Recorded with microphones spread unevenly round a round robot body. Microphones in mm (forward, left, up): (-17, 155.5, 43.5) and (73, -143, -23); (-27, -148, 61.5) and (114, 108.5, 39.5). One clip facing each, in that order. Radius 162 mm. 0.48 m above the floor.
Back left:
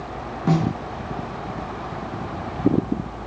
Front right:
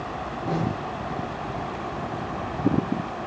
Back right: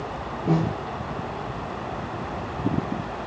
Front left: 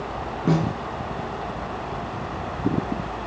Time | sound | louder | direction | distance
0.5 | a snare drum | back left 6 dB, front left 1 dB | 120° left | 4 m